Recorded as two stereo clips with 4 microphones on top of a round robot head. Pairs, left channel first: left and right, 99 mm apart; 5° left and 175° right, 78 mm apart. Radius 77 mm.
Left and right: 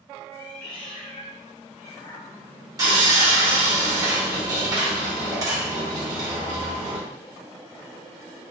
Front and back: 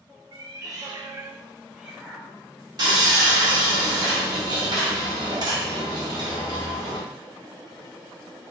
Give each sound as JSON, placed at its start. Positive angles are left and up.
{"t": 0.3, "sound": "a cat meowing", "azimuth_deg": 155, "distance_m": 1.0}
{"t": 2.8, "sound": "sawing", "azimuth_deg": -140, "distance_m": 1.7}